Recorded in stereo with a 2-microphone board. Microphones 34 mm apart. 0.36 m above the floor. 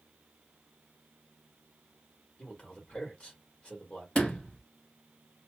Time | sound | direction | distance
2.4 | a man speaking | 25° left (ahead or behind) | 1.4 m
4.2 | a sliding door | 35° left (ahead or behind) | 1.0 m